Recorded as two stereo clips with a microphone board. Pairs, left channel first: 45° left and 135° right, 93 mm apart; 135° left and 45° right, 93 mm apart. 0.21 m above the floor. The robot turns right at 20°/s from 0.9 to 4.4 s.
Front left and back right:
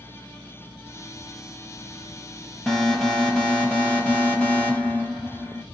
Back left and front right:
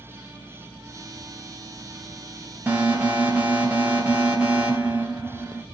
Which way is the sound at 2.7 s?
35° right.